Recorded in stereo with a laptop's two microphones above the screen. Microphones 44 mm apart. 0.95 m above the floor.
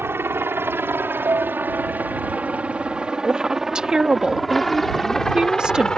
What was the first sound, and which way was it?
A helicopter, 65° right (ahead or behind).